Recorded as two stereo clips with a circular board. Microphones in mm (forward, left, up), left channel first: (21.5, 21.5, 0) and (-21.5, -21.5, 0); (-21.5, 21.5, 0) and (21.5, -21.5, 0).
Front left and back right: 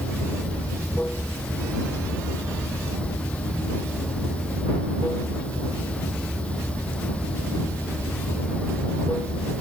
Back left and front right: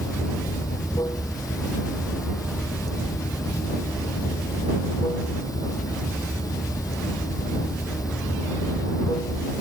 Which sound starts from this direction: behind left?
Running water, at 0.0 s.